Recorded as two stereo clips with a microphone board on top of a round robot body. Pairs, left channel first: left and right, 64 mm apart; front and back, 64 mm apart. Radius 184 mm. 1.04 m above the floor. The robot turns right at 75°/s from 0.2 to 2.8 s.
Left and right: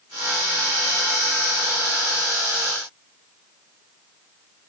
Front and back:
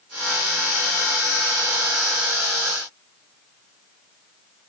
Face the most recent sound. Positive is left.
No sound to turn to.